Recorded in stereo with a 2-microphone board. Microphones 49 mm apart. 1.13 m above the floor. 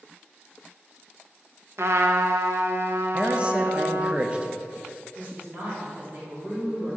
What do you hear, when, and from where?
1.8 s a trumpet: 70° right (ahead or behind), 0.5 m
3.1 s a man speaking: 25° right (ahead or behind), 0.5 m
5.2 s a woman speaking: 30° right (ahead or behind), 2 m